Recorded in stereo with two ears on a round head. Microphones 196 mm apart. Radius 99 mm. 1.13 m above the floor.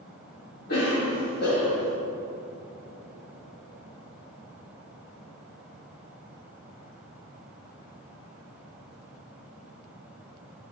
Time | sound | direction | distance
0.7 | a cough | 45° left (ahead or behind) | 2 m